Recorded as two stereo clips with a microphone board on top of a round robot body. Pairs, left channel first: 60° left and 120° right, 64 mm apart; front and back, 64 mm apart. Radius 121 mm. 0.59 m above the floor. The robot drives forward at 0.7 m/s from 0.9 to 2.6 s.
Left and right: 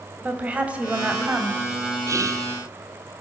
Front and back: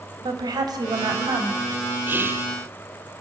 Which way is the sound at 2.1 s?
130° right.